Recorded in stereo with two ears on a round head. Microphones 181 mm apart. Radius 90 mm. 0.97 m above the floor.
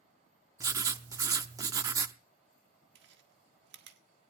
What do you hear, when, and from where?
0.6 s writing: 15° right (ahead or behind), 0.5 m
3.0 s chewing: 60° right (ahead or behind), 1.5 m